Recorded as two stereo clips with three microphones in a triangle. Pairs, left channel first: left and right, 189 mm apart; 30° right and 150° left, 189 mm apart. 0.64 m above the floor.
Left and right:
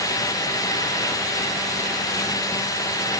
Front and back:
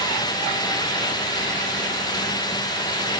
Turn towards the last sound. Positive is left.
No sound to turn to.